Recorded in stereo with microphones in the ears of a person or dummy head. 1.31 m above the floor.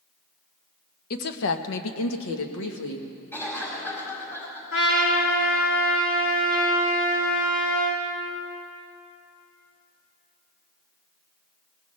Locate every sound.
1.1 s a woman speaking: 50° left (ahead or behind), 1.0 m; by 3.1 s 65° left (ahead or behind), 1.7 m
3.3 s a cough: 15° left (ahead or behind), 4.5 m
4.7 s a trumpet: 70° left (ahead or behind), 1.9 m